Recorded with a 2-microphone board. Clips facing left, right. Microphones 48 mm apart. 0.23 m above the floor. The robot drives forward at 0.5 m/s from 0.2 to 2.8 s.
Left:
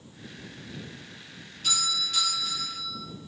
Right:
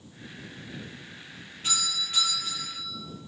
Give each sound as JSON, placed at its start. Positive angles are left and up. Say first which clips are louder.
{"t": 1.6, "sound": "a doorbell", "louder": "left 1 dB", "side_deg": -25, "distance_m": 6.5}